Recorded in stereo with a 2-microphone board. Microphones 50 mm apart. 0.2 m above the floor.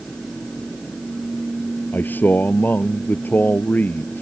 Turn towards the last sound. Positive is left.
turn(degrees=40)  # may be behind; listen again after turning